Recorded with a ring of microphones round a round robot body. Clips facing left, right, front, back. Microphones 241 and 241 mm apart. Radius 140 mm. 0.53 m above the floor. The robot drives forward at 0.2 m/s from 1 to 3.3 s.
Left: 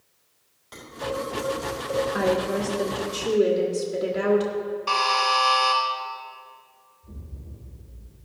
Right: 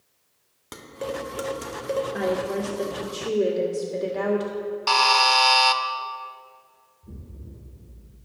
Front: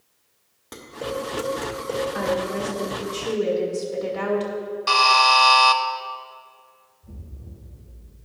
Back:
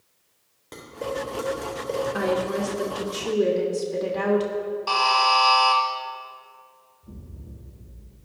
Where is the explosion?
100° right, 1.2 m.